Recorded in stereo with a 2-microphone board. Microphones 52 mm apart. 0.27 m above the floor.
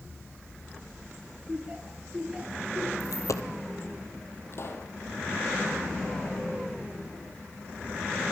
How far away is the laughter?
About 7.5 m.